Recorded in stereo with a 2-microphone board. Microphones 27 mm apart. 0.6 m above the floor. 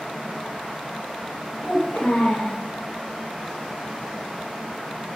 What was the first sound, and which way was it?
A child speaking, 65° left (ahead or behind).